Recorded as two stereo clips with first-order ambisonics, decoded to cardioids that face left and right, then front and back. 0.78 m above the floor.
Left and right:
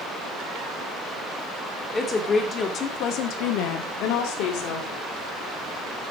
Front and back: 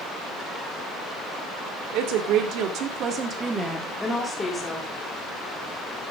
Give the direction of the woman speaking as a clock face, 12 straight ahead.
6 o'clock.